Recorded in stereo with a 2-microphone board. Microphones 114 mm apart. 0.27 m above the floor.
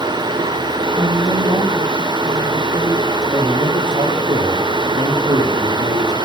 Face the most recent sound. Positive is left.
turn(degrees=-45)  # may be behind; listen again after turning